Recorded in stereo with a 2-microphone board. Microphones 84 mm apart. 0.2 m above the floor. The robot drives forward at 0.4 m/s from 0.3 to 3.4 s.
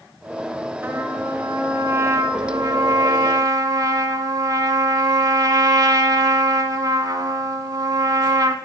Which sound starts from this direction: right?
A trumpet, at 0.8 s.